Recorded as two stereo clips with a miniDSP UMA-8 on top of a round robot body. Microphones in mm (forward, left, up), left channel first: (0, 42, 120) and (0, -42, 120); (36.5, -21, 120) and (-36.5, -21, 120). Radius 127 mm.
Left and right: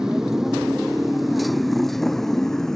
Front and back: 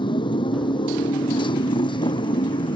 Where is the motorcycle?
5° right; by 2.8 s 5° left.